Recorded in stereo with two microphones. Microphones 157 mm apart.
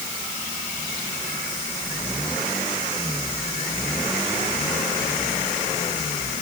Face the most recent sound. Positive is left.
No sound to turn to.